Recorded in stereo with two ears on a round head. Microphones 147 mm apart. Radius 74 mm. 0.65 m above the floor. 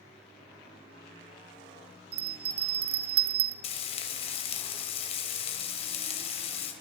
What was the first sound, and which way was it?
A bell, 65° right (ahead or behind).